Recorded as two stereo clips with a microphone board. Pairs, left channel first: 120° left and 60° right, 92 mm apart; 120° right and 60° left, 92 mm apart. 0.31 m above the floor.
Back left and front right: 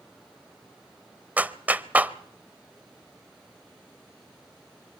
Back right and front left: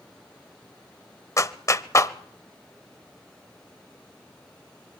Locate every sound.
1.4 s a clap: 120° right, 0.8 m